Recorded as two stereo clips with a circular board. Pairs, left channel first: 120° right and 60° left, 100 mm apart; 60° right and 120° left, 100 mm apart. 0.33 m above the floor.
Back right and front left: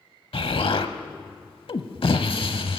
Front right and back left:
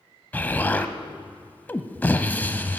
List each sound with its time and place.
0.3 s an explosion: 130° right, 0.7 m